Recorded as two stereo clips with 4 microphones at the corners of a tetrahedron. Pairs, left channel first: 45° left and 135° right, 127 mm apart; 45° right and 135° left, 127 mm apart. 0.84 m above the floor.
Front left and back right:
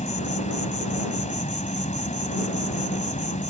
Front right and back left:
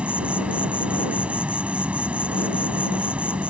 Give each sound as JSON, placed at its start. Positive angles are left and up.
{"t": 0.0, "sound": "an insect", "azimuth_deg": 55}